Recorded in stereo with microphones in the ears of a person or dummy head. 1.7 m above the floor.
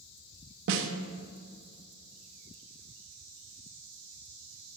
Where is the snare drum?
65° right (ahead or behind), 1.7 m.